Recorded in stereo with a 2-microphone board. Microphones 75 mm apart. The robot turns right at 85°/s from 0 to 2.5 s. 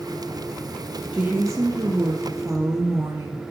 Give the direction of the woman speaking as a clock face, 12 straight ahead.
5 o'clock.